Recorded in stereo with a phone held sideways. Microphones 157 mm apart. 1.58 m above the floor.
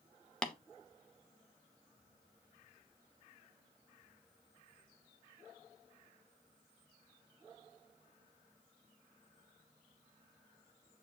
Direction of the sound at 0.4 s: 5° left (ahead or behind).